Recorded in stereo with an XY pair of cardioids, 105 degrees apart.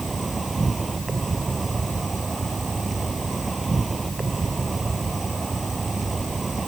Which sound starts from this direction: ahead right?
An insect, at 0.0 s.